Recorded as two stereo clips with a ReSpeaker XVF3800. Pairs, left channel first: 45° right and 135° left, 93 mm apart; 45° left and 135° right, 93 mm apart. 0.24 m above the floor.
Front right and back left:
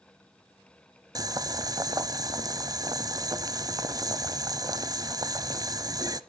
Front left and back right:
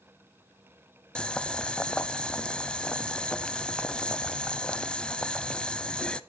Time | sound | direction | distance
1.1 | boiling | 120° left | 0.6 m